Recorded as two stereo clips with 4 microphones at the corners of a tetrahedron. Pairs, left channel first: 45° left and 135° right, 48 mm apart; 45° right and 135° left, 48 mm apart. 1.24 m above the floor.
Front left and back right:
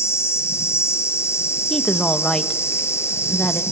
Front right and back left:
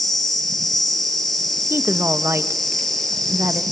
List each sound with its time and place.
0.0 s an insect: 35° left, 3.5 m
1.7 s a woman speaking: 125° left, 1.5 m